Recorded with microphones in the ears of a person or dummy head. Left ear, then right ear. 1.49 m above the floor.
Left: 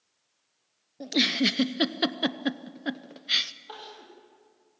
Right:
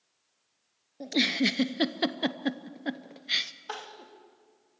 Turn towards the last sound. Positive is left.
turn(degrees=-50)  # may be behind; listen again after turning